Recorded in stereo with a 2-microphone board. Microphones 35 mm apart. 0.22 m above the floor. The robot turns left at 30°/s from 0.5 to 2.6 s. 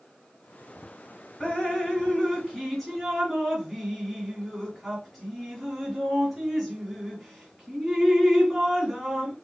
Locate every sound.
1.4 s dripping: 25° left (ahead or behind), 2 m; by 9.3 s 5° right (ahead or behind), 2 m